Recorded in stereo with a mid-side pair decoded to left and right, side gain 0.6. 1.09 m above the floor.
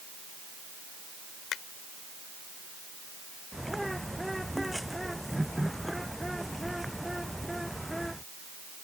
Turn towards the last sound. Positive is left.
turn(degrees=0)